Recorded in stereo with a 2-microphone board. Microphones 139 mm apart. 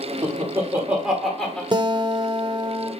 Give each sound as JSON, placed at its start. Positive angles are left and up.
{"t": 0.2, "sound": "laughter", "side_deg": -25, "distance_m": 1.5}
{"t": 1.7, "sound": "a guitar", "side_deg": -30, "distance_m": 0.6}